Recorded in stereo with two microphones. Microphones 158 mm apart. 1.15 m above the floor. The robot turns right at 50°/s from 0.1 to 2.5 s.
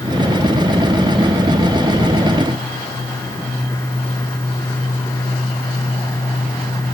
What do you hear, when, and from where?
Only background noise.